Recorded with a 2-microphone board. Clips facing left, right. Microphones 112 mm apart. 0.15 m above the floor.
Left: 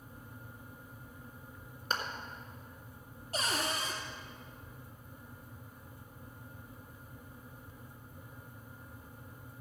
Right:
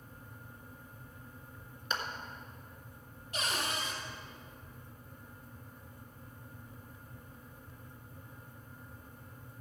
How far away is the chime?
No chime in this recording.